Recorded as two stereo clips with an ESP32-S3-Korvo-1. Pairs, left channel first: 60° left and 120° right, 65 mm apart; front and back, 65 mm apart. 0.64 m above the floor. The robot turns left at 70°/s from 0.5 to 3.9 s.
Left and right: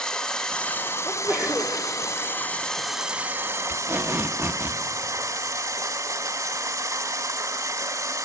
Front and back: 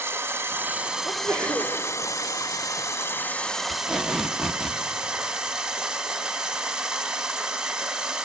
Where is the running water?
135° left, 0.9 m; by 8.2 s 105° right, 0.9 m.